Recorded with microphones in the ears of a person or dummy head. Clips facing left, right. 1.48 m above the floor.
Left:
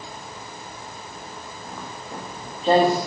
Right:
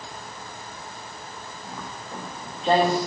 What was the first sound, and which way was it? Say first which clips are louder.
Footsteps: left 1 dB; centre (ahead or behind).